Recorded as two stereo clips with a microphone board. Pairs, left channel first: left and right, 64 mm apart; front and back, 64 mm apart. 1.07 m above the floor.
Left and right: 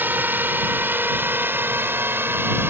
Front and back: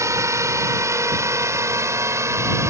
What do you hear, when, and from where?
0.0 s a drone: 145° right; by 2.7 s 140° right